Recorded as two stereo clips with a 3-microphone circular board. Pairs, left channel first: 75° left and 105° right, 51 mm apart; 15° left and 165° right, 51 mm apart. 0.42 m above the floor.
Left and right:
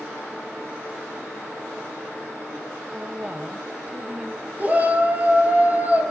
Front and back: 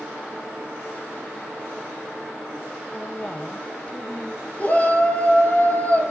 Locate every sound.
2.9 s a woman speaking: 40° right, 2.5 m
4.6 s a shout: 45° right, 8 m